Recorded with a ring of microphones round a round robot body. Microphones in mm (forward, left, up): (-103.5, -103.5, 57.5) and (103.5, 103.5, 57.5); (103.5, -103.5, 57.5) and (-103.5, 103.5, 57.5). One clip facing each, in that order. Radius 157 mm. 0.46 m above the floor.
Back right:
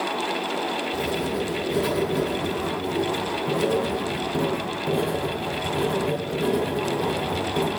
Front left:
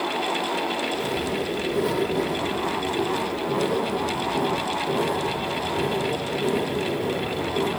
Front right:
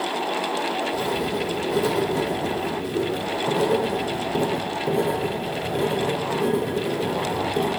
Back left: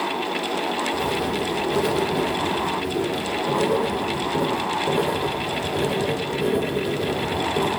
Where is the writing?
115° right, 1.8 m.